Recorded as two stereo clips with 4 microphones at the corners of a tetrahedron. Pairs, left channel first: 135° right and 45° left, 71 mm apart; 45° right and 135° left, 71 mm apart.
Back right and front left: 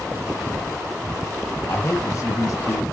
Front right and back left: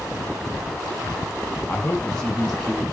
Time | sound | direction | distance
1.7 | a man speaking | 110° right | 1.4 m